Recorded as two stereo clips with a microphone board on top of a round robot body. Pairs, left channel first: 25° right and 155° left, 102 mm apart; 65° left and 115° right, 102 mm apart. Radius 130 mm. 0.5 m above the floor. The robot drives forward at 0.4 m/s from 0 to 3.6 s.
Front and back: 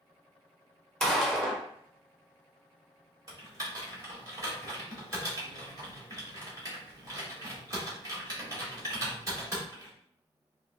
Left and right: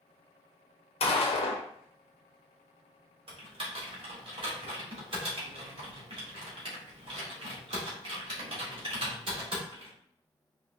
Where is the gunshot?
65° left, 1.1 m; by 1.6 s 75° left, 1.1 m.